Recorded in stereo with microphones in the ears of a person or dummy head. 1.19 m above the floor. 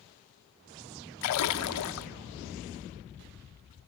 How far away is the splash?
About 0.6 m.